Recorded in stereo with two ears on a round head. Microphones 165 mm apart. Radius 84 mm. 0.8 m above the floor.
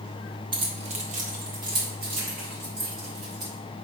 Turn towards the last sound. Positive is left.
turn(degrees=-60)  # may be behind; listen again after turning